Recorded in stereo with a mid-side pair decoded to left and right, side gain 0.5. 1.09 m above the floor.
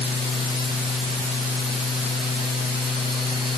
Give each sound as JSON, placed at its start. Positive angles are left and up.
{"t": 0.0, "sound": "a fan", "azimuth_deg": 30}